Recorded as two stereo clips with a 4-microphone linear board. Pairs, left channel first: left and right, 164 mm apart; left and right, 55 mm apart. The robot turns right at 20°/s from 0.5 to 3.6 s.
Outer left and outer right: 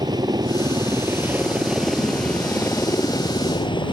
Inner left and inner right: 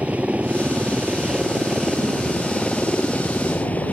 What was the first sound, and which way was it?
A helicopter, 30° right.